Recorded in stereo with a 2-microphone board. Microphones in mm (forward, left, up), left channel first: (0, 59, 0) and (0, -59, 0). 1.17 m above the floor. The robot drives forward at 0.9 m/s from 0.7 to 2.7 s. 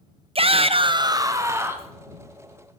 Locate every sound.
0.3 s a shout: 50° right (ahead or behind), 0.6 m; by 1.9 s 20° right (ahead or behind), 1.5 m